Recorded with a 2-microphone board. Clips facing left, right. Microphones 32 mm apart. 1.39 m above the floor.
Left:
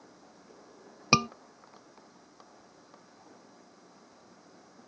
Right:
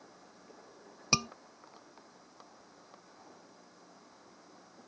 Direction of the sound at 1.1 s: 30° left (ahead or behind).